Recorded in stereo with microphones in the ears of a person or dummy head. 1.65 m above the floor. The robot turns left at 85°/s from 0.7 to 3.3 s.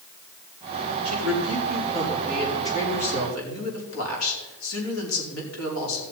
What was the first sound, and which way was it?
A woman speaking, 75° right.